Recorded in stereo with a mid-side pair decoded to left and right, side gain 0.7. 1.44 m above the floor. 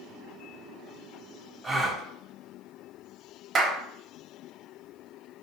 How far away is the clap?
About 0.8 m.